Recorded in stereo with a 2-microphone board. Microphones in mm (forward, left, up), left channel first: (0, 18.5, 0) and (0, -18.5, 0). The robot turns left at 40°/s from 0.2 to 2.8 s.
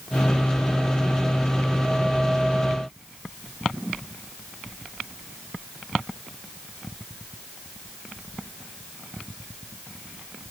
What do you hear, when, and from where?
Only background noise.